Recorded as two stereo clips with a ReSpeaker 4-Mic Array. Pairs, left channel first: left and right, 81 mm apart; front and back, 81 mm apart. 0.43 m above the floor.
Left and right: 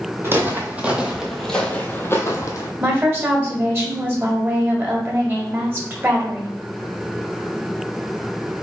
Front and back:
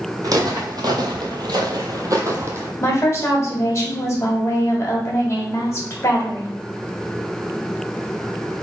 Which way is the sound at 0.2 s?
145° right.